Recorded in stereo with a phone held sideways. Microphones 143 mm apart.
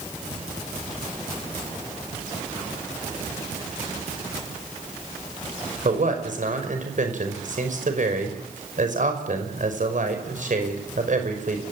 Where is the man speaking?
65° right (ahead or behind), 5.5 m.